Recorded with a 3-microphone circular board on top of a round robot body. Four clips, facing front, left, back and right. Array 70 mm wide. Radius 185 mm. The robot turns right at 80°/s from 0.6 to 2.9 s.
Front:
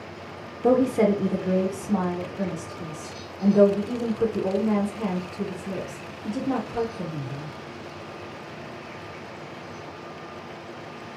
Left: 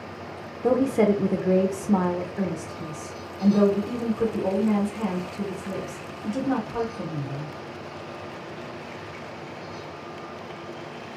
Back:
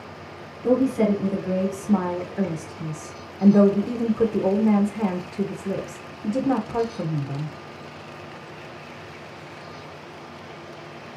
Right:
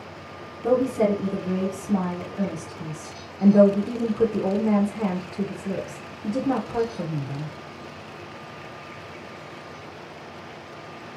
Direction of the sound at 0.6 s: 25° left.